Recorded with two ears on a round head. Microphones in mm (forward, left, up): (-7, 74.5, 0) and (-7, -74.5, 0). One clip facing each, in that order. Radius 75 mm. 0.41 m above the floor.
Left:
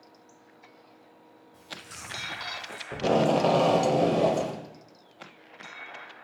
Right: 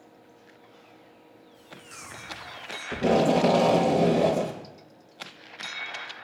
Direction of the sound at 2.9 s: 10° right (ahead or behind).